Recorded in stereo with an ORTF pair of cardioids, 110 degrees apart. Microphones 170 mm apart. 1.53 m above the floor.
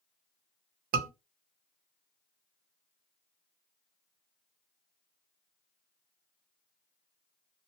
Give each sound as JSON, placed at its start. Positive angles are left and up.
{"t": 0.9, "sound": "a scream", "azimuth_deg": -60, "distance_m": 0.9}